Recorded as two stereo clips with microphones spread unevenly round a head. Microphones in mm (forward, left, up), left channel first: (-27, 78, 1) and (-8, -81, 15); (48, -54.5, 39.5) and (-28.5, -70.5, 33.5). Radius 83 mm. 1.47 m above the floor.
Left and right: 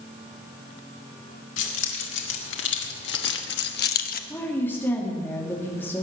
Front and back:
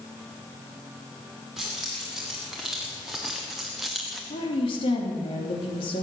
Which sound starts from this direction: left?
Keys jangling, at 1.6 s.